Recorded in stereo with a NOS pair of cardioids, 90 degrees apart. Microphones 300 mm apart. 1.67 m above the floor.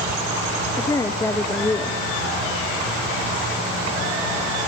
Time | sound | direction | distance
0.8 | a woman speaking | 10° left | 1.3 m